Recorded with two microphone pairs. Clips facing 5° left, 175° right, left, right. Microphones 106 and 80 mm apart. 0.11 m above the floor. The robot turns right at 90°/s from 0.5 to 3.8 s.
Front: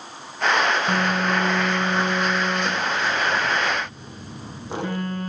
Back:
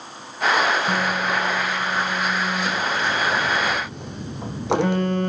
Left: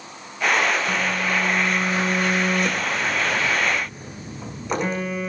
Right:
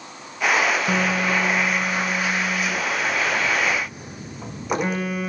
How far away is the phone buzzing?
About 3 m.